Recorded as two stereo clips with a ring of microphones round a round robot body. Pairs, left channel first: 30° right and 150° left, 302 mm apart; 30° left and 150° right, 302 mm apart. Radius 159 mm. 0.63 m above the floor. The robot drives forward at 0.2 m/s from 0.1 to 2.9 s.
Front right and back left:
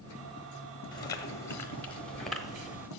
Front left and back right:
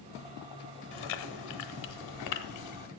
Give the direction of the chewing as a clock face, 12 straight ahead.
10 o'clock.